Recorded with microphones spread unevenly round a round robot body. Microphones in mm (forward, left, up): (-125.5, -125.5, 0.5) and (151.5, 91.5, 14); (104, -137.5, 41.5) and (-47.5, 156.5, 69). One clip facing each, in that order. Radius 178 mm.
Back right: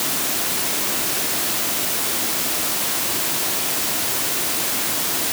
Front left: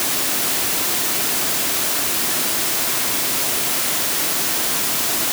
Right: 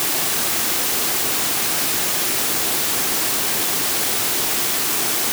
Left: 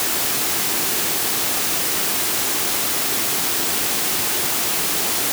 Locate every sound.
Only background noise.